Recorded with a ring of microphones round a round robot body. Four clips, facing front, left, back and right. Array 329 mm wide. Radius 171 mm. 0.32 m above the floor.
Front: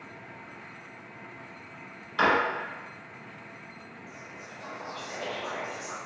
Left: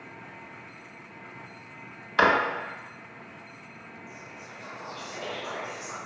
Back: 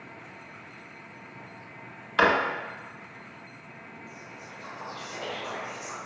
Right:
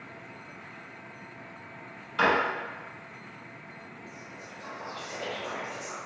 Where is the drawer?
130° left, 0.5 m.